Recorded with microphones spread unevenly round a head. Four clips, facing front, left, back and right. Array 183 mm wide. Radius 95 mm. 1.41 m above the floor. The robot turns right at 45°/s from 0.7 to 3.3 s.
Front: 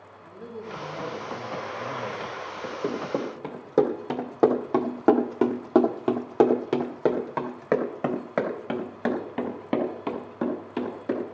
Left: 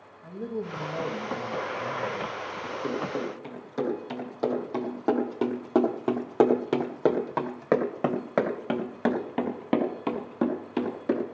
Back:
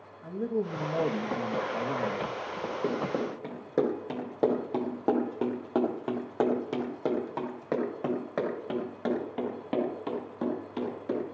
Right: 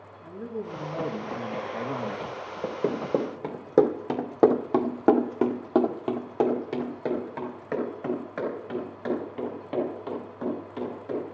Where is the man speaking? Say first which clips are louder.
Left 1 dB, back 8 dB; 165° left, 1.7 m; by 2.4 s 120° right, 1.7 m.